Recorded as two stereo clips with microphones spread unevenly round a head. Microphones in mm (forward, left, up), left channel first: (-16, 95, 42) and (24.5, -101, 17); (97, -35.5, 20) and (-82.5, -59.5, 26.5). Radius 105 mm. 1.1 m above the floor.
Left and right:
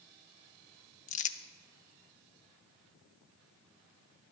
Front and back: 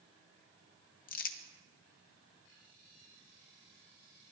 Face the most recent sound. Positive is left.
turn(degrees=45)